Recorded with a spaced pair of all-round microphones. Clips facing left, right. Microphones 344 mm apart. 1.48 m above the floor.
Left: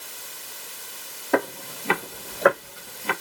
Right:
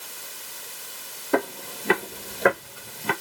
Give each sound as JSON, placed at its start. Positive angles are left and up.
{"t": 1.3, "sound": "footsteps", "side_deg": -10, "distance_m": 1.8}